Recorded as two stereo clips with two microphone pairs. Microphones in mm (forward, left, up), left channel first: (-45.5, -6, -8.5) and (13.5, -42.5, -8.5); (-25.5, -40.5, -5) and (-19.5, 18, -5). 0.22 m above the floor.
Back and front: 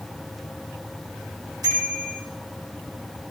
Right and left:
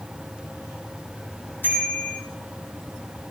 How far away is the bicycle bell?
About 8.5 m.